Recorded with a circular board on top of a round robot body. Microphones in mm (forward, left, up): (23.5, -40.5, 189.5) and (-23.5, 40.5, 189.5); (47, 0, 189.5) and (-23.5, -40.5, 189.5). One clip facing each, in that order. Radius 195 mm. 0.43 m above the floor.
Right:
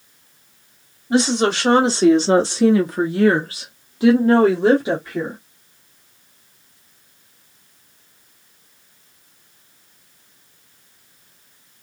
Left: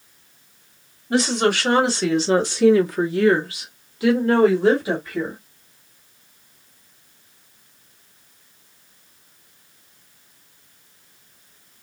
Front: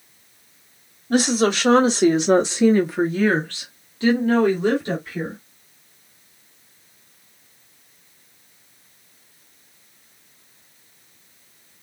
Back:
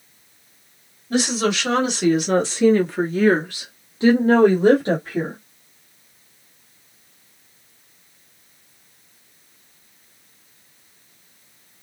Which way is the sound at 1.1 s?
5° left.